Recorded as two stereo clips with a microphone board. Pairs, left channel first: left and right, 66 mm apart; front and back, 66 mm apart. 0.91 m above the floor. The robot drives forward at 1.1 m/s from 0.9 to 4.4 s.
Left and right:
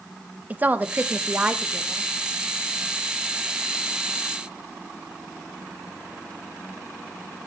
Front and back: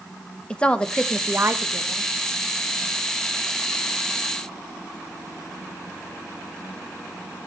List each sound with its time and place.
0.5 s a woman speaking: 55° right, 0.6 m; by 2.1 s 170° right, 1.3 m